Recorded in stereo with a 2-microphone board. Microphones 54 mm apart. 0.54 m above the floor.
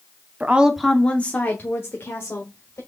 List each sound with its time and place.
0.4 s a woman speaking: 30° right (ahead or behind), 0.7 m; by 2.8 s 55° left (ahead or behind), 2.0 m